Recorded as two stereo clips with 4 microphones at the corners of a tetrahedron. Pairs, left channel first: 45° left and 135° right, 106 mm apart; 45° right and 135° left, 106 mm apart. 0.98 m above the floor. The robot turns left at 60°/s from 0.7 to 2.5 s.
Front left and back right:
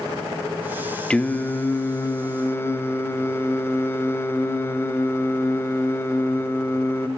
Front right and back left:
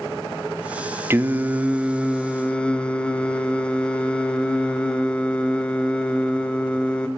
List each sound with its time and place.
1.1 s singing: 110° left, 0.5 m; by 7.1 s 25° left, 0.5 m